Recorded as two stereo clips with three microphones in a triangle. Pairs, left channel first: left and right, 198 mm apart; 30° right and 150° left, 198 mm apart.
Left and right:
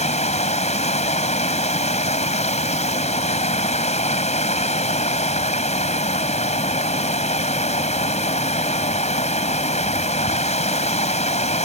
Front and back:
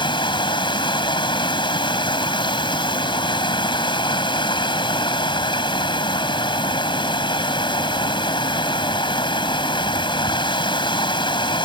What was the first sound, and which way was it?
Running water, 35° left.